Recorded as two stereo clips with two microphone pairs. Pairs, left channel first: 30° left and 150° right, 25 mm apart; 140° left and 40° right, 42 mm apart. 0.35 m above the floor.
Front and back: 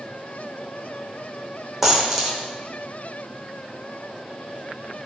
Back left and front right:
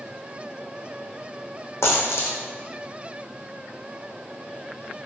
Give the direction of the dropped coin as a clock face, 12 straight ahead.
7 o'clock.